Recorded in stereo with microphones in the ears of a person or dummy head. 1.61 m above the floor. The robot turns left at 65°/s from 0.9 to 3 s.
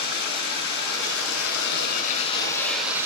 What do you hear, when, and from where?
0.0 s running water: 125° left, 7 m; by 3.1 s 15° right, 7 m